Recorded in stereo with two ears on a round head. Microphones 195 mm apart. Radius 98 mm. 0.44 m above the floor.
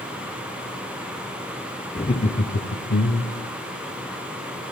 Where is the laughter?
20° left (ahead or behind), 0.9 m; by 3.5 s 55° left (ahead or behind), 1.2 m.